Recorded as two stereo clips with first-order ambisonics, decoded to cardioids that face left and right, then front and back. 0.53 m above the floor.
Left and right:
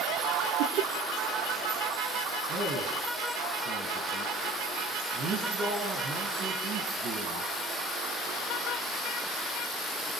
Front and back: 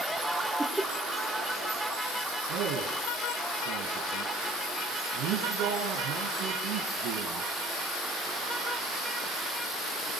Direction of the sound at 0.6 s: 95° right.